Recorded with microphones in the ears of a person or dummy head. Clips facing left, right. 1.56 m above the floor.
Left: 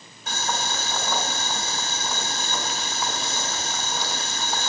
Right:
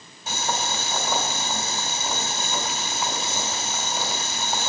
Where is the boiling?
Centre (ahead or behind), 3.5 m.